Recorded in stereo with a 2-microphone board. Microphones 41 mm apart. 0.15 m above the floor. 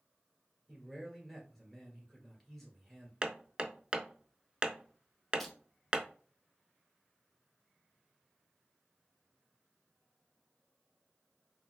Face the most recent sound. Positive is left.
turn(degrees=0)  # may be behind; listen again after turning